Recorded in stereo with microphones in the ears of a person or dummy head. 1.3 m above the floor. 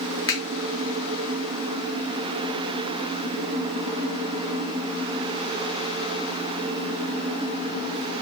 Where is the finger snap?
25° left (ahead or behind), 0.8 m.